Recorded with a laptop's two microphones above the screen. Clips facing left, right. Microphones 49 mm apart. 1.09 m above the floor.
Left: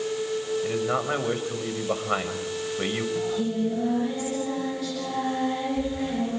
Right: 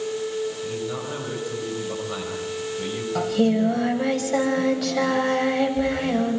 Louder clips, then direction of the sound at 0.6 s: Left 3 dB; 45° left (ahead or behind).